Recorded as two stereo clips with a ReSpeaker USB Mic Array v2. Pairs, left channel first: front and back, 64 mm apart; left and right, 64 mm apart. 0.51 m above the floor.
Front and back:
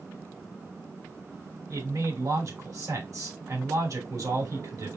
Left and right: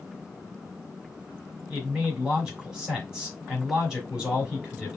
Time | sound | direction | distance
1.7 | a man speaking | 170° right | 3 m